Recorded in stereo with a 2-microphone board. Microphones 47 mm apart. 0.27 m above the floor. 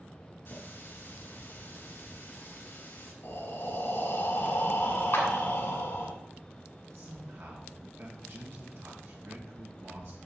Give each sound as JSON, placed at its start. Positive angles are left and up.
{"t": 0.5, "sound": "a running tap", "side_deg": 50, "distance_m": 1.7}
{"t": 3.2, "sound": "breathing", "side_deg": 60, "distance_m": 1.3}
{"t": 5.1, "sound": "a clap", "side_deg": 60, "distance_m": 2.5}
{"t": 6.9, "sound": "a man speaking", "side_deg": -60, "distance_m": 3.0}